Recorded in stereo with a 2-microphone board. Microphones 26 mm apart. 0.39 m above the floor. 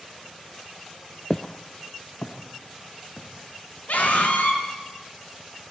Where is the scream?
75° left (ahead or behind), 5 m.